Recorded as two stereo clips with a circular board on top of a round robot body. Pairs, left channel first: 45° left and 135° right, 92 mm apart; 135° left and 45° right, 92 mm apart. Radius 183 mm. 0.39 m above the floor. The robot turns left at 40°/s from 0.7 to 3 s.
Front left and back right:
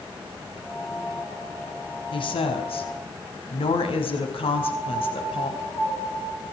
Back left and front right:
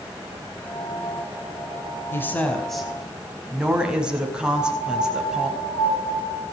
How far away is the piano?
About 9 m.